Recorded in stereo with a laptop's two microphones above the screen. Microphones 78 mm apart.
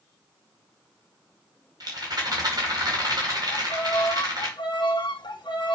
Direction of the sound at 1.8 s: 55° right (ahead or behind).